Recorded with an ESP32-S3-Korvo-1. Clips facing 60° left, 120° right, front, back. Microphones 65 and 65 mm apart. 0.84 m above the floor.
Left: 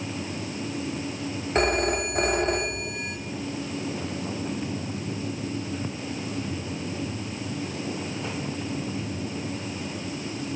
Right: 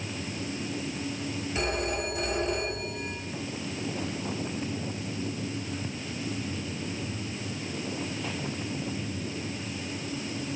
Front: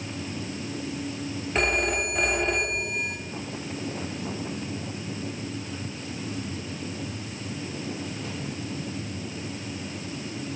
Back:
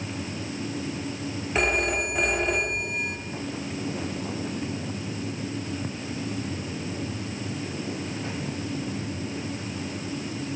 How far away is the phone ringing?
About 1.4 m.